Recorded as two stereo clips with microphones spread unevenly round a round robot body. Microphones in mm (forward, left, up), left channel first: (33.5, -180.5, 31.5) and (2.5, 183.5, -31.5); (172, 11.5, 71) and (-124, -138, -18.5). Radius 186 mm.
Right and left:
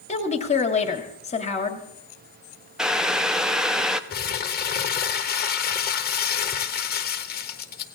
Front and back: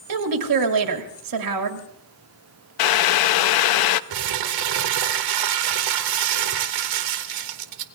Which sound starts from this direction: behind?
A woman speaking, at 0.1 s.